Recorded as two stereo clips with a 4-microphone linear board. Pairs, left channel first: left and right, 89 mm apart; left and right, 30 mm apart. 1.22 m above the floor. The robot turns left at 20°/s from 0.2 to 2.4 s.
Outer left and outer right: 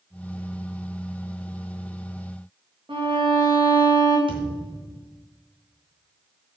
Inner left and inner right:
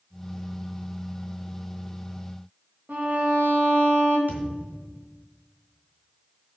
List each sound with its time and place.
2.9 s a violin: 70° right (ahead or behind), 2.5 m
4.3 s a thud: 75° right (ahead or behind), 3 m